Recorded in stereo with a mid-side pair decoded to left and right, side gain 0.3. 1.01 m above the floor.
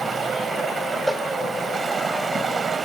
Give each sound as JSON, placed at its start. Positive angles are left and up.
{"t": 0.0, "sound": "running water", "azimuth_deg": -70, "distance_m": 1.9}
{"t": 1.1, "sound": "a cowbell", "azimuth_deg": 0, "distance_m": 3.0}